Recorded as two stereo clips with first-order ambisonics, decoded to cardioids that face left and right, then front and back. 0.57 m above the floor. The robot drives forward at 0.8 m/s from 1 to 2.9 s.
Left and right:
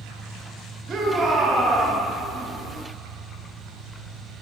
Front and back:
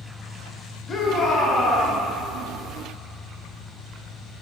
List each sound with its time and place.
0.9 s a shout: 35° right, 1.3 m; by 2.0 s 115° right, 1.1 m